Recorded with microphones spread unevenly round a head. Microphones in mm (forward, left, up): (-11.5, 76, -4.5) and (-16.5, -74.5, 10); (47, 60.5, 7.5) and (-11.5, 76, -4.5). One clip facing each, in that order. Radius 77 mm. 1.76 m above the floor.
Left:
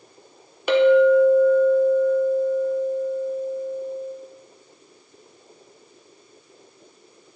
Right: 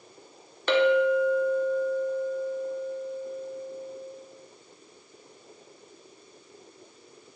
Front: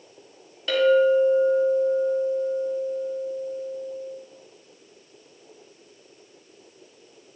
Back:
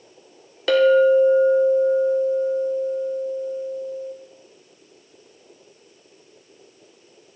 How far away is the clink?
About 1.0 m.